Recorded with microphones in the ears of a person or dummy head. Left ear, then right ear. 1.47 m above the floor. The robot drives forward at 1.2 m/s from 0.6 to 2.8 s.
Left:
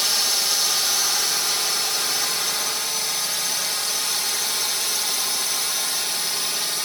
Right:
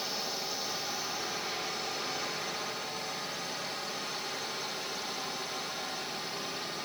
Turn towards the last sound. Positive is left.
turn(degrees=60)  # may be behind; listen again after turning